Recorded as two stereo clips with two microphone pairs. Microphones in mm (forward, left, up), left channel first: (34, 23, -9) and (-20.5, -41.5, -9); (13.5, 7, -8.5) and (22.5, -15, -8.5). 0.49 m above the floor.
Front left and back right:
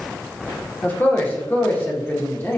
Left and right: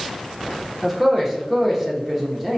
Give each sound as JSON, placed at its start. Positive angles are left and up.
{"t": 0.8, "sound": "a man speaking", "azimuth_deg": 5, "distance_m": 0.8}